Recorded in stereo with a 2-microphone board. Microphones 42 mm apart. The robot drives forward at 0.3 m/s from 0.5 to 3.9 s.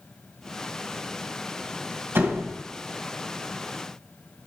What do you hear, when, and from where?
2.1 s a door slam: 70° right (ahead or behind), 2 m; by 2.5 s 65° right (ahead or behind), 2 m